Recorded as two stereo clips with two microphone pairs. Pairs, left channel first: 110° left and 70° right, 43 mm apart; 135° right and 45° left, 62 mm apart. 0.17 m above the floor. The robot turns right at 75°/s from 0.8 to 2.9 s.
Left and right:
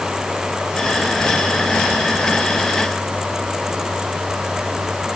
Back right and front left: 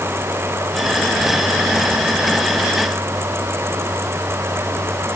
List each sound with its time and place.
Only background noise.